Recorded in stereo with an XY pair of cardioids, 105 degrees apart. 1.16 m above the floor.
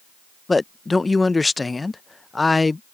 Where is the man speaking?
20° left.